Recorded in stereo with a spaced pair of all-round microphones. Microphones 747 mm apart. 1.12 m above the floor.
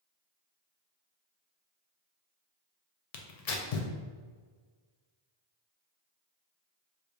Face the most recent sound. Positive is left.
turn(degrees=55)  # may be behind; listen again after turning